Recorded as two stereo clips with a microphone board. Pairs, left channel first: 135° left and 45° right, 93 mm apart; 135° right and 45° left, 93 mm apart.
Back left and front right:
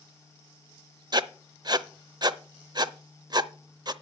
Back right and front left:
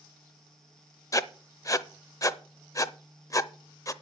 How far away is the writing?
About 0.6 m.